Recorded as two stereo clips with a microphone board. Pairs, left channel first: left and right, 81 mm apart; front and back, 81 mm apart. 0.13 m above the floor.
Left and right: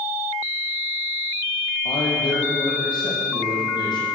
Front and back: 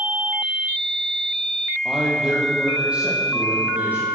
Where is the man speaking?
95° left, 4.5 m; by 4.1 s 110° left, 6 m.